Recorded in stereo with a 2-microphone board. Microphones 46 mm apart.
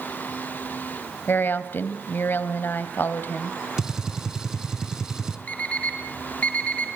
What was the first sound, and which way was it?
A woman speaking, 50° left (ahead or behind).